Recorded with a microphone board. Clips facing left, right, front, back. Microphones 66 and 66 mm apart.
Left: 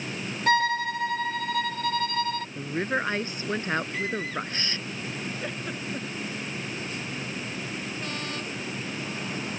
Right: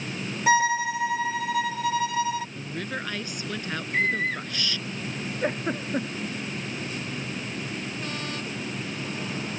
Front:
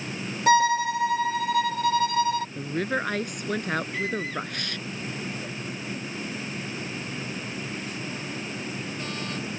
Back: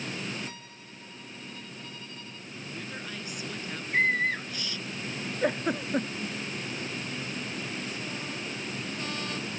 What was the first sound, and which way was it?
A violin, 5° right.